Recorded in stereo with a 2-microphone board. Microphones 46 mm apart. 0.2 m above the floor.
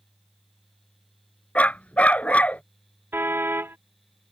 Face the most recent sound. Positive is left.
turn(degrees=-45)  # may be behind; listen again after turning